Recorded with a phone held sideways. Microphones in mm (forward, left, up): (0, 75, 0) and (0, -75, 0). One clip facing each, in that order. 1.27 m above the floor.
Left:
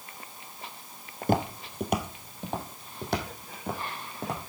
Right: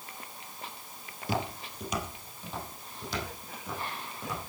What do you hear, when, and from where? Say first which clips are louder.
1.2 s footsteps: left 6 dB; 45° left (ahead or behind), 1.8 m; by 4.4 s 55° left (ahead or behind), 5 m